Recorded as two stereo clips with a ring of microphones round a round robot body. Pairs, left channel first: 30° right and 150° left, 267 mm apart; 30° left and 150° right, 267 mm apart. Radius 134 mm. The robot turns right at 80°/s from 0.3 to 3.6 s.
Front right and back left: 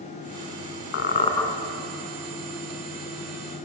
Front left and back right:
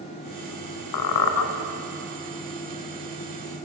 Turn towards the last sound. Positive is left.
turn(degrees=-135)